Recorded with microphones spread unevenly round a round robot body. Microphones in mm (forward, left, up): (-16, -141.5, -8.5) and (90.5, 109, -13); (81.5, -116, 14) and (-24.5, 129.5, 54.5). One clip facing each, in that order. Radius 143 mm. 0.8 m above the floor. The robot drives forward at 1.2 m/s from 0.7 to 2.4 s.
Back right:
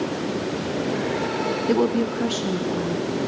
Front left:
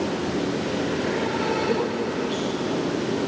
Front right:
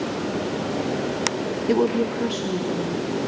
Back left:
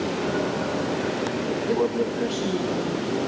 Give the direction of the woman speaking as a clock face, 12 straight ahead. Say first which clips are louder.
Back right 4 dB, front right 4 dB; 2 o'clock.